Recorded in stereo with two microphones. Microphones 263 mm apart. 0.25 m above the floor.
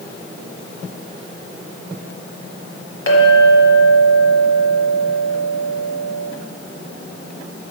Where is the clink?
50° left (ahead or behind), 1.3 m.